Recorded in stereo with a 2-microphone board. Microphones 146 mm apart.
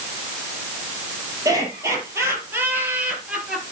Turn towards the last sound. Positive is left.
turn(degrees=-5)  # may be behind; listen again after turning